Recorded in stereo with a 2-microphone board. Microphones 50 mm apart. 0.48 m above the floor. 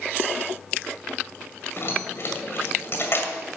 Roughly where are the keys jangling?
Left.